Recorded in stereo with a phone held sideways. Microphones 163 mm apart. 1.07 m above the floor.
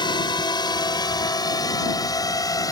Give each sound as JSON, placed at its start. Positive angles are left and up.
{"t": 0.0, "sound": "a drone", "side_deg": 30}